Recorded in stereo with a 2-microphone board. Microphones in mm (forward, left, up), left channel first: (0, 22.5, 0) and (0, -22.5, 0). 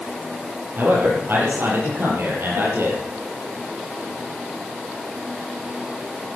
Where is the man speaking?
50° right (ahead or behind), 7.5 m; by 3.1 s 65° right (ahead or behind), 6.5 m.